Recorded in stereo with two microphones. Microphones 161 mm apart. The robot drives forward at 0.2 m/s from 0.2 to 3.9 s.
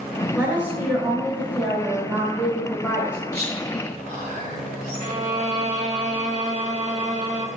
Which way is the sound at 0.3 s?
10° right (ahead or behind).